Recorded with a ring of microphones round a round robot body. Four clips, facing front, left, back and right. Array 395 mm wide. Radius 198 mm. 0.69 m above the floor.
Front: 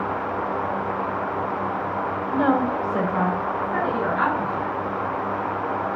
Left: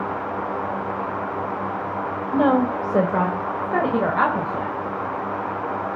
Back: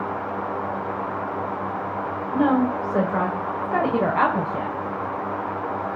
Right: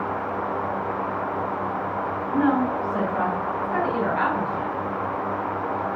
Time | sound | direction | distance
2.3 | a woman speaking | 80° left | 2.5 m